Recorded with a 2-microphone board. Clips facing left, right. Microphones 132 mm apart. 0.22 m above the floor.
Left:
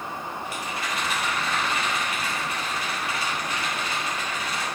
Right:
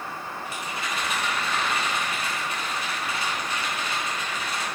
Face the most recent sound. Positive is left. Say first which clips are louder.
# even
turn(degrees=-25)  # may be behind; listen again after turning